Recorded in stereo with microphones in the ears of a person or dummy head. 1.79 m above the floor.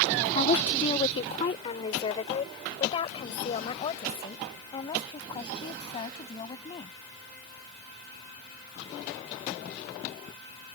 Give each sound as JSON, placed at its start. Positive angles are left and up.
{"t": 0.3, "sound": "a woman speaking", "side_deg": 35}